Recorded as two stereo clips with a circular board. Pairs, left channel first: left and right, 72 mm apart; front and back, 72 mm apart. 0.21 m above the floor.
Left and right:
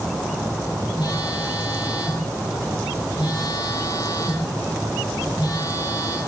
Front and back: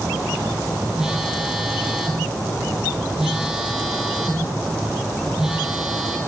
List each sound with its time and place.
1.0 s a phone buzzing: 100° left, 3.5 m